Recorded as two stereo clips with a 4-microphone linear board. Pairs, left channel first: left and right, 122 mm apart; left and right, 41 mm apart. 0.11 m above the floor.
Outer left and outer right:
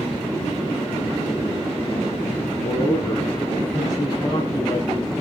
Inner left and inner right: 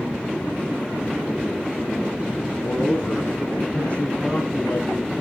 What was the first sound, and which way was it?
A man speaking, 30° left (ahead or behind).